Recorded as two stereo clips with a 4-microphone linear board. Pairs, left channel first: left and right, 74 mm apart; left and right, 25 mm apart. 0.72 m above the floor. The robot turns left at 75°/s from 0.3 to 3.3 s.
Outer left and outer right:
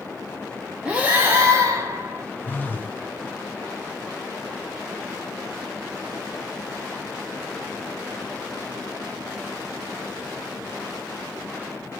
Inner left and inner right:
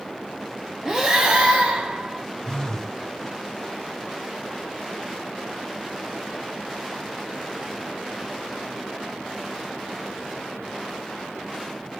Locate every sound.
0.8 s breathing: 25° right, 0.8 m; by 2.2 s 130° right, 0.8 m
2.4 s a phone buzzing: 25° left (ahead or behind), 0.5 m; by 3.0 s 20° left (ahead or behind), 0.5 m